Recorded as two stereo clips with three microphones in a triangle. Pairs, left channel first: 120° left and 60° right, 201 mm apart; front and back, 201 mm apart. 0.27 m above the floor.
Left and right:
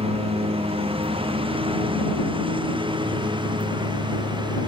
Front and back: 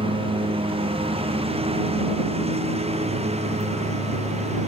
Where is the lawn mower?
120° right; by 4.7 s 125° right.